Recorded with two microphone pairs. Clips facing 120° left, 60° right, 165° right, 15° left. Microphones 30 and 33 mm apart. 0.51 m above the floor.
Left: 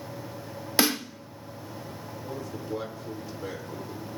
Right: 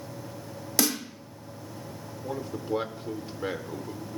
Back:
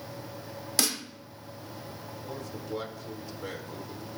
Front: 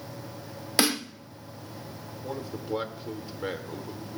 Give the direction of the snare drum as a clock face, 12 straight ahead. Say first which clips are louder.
Left 3 dB, front 6 dB; 10 o'clock.